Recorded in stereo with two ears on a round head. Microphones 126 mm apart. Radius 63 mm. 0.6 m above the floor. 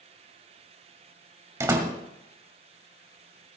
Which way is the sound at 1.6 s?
20° right (ahead or behind).